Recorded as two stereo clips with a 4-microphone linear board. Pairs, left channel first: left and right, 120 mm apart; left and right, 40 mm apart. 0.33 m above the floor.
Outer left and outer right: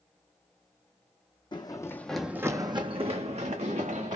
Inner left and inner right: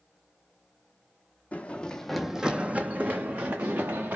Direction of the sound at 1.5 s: 40° left (ahead or behind).